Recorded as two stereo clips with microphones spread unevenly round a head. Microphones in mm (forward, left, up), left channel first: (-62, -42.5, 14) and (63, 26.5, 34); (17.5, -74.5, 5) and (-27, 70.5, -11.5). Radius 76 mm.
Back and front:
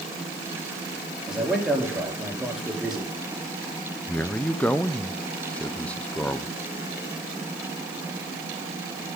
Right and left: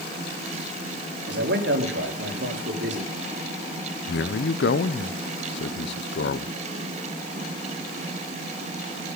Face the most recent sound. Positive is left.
turn(degrees=-75)